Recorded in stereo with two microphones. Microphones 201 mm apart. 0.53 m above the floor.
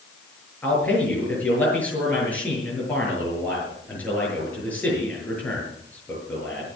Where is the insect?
No insect in this recording.